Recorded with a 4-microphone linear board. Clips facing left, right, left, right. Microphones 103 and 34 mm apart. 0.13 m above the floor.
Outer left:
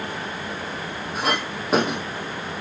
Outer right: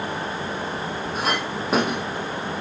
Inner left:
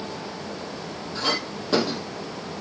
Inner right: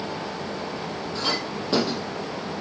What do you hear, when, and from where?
1.1 s a clink: centre (ahead or behind), 2.5 m